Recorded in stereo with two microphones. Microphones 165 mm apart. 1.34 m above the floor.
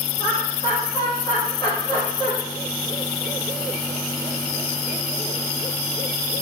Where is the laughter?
25° left (ahead or behind), 1.2 m.